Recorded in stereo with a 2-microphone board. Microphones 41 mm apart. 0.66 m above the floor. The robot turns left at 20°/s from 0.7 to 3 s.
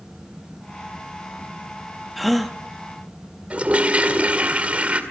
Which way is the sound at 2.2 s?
Centre (ahead or behind).